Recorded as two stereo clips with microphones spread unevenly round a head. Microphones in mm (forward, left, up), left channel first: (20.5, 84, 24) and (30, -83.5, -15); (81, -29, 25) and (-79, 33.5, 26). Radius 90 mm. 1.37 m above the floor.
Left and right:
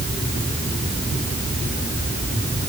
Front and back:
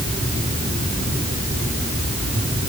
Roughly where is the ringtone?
No ringtone in this recording.